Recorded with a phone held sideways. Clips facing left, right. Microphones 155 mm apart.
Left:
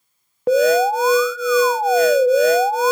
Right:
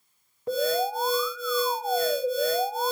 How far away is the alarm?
About 0.6 m.